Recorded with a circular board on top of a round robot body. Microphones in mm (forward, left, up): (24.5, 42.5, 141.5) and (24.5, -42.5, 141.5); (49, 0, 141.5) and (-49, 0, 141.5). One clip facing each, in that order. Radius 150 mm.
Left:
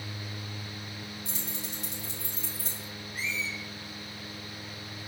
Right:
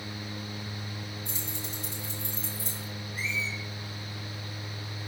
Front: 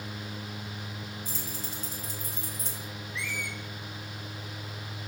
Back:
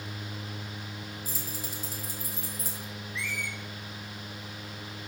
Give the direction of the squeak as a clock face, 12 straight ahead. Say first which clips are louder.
Right 1 dB, even; 9 o'clock.